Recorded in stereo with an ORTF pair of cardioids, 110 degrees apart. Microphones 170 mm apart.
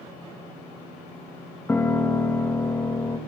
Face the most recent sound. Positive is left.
turn(degrees=10)